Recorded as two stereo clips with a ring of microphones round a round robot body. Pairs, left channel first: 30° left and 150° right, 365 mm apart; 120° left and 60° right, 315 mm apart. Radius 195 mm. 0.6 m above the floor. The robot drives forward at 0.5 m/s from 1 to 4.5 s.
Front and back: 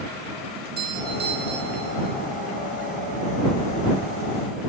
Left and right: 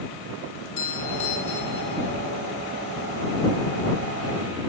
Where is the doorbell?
145° left, 4 m; by 2.1 s 150° left, 4.5 m.